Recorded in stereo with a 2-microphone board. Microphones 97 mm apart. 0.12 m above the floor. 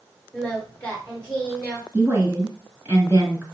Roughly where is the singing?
Centre.